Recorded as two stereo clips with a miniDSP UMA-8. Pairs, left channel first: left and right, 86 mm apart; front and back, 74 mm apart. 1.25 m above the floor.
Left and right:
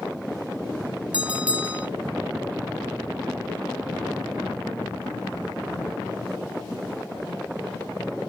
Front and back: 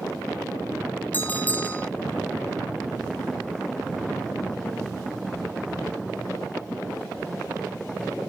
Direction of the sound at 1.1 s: 30° right.